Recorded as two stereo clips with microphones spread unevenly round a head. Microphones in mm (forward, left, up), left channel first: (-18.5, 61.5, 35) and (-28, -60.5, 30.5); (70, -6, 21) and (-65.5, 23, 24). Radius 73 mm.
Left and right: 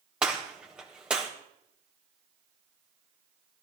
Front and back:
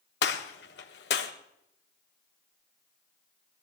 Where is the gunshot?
10° right, 1.6 m.